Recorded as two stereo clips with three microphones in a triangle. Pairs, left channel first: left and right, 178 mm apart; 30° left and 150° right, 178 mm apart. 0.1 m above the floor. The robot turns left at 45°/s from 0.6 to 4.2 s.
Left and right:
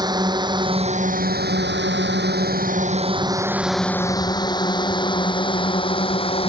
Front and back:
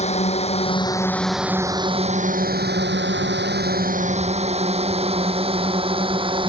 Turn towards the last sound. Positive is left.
turn(degrees=150)